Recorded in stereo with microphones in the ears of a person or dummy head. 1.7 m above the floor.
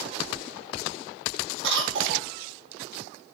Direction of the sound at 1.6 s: 70° right (ahead or behind).